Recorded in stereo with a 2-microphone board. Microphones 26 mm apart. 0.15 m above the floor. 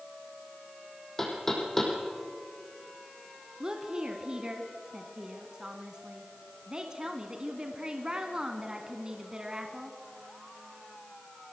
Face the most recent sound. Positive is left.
turn(degrees=-25)  # may be behind; listen again after turning